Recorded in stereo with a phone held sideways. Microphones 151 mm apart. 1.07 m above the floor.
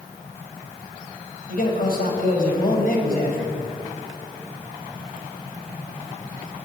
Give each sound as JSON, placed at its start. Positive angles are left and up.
{"t": 1.5, "sound": "a man speaking", "side_deg": 75, "distance_m": 6.0}